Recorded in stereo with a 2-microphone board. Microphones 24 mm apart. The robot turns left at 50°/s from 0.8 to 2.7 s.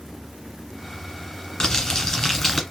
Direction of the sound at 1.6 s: 65° left.